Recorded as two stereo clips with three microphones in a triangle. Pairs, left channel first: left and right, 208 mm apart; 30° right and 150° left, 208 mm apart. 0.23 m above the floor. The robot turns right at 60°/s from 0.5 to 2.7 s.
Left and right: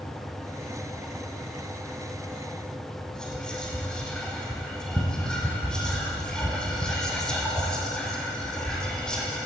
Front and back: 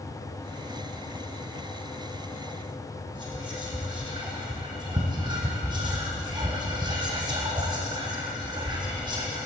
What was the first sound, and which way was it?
Whispering, 170° left.